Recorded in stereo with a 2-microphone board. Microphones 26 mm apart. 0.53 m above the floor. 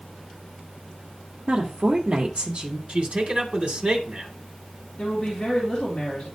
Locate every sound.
1.5 s a woman speaking: 45° right (ahead or behind), 1.4 m
2.9 s a man speaking: 50° right (ahead or behind), 2.5 m
5.0 s a woman speaking: 20° left (ahead or behind), 4 m